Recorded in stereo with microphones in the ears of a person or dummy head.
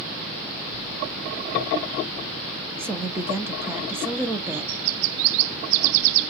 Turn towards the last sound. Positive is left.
turn(degrees=-10)  # may be behind; listen again after turning